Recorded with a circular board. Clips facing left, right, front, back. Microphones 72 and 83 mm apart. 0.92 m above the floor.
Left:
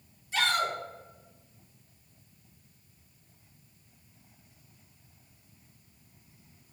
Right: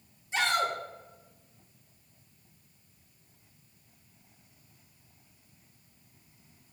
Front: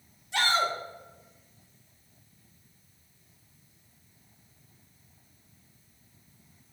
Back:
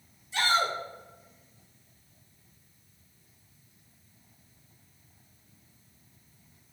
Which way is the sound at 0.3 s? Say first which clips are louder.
Even, even; 20° right.